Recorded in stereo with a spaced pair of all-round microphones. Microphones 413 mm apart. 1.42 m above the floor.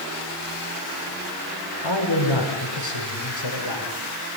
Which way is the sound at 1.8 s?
85° left.